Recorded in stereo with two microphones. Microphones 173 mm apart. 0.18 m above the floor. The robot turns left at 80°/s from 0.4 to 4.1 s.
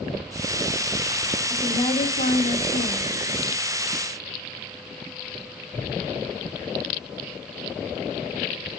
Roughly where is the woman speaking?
Behind.